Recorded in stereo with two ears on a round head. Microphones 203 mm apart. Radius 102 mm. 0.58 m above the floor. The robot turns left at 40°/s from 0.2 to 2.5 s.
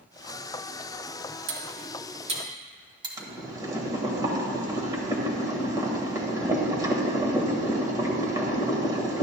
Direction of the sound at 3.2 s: 15° right (ahead or behind).